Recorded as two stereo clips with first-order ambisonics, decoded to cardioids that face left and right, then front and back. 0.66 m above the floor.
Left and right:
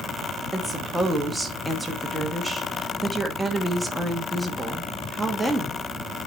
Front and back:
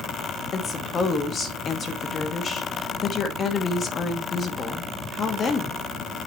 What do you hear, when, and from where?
0.5 s a woman speaking: 5° right, 1.2 m